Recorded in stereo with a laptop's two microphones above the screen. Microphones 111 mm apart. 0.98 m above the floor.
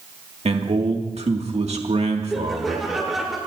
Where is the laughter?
Centre (ahead or behind), 4 m.